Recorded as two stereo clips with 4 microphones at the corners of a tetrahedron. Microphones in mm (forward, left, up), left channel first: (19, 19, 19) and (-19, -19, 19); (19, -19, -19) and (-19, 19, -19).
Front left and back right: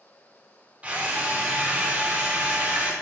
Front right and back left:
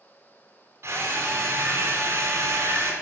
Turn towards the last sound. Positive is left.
turn(degrees=160)